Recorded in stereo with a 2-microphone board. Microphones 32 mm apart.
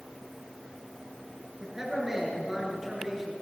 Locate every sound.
1.6 s a man speaking: 15° right (ahead or behind), 8 m; by 3.3 s 10° right (ahead or behind), 8 m